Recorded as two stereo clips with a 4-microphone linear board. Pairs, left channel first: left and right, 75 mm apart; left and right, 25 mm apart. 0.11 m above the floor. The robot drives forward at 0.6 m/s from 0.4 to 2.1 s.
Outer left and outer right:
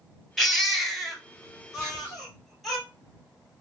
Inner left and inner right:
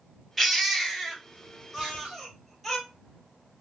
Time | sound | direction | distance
0.4 | a baby crying | centre (ahead or behind) | 0.9 m
1.8 | whispering | 25° right (ahead or behind) | 3 m